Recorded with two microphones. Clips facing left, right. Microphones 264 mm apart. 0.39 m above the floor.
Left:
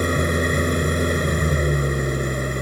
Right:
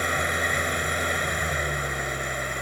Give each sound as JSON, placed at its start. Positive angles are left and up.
{"t": 0.0, "sound": "an engine running", "side_deg": 50}